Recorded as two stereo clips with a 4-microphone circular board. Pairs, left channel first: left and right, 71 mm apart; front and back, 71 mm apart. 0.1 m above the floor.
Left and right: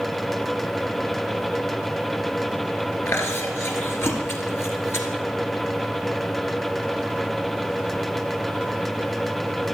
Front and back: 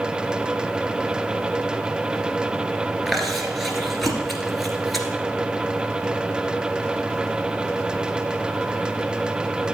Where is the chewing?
90° left, 1.6 m.